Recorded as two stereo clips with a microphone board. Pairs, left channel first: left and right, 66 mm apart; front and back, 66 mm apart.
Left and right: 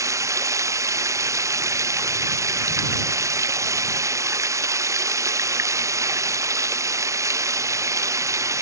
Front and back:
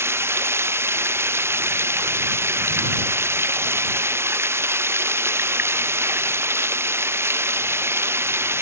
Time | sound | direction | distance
0.0 | running water | 130° right | ?